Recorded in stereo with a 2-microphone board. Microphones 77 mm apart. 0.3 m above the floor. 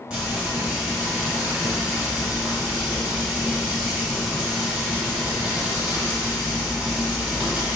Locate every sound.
0.1 s frying: 15° right (ahead or behind), 1.7 m